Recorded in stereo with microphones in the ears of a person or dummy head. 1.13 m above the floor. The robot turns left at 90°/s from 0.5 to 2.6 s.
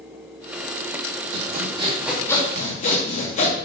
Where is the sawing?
105° right, 2.5 m; by 3.5 s 140° left, 2.5 m.